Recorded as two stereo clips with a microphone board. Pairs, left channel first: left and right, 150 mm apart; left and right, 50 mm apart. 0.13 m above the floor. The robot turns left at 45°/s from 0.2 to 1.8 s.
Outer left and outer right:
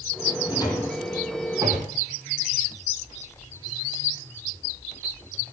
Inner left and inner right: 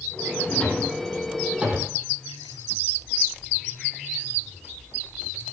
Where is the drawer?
30° left (ahead or behind), 3.5 m; by 2.0 s 25° right (ahead or behind), 3.5 m.